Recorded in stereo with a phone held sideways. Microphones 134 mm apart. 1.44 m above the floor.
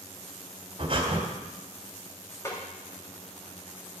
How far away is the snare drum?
About 3 m.